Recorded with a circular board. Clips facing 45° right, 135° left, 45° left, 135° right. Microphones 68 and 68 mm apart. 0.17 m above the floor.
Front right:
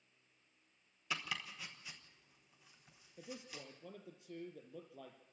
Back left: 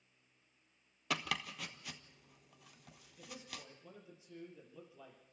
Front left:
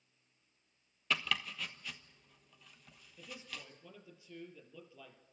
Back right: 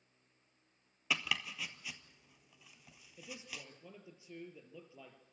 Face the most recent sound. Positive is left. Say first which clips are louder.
# front right 1 dB, even
turn(degrees=-65)